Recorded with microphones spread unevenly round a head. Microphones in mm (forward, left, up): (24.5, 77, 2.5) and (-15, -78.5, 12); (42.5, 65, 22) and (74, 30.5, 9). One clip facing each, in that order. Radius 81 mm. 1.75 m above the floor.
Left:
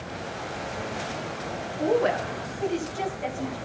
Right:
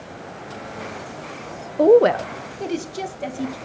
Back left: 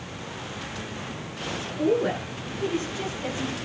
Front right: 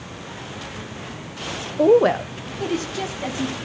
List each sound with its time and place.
1.8 s a woman speaking: 90° right, 0.6 m; by 3.5 s 60° right, 3 m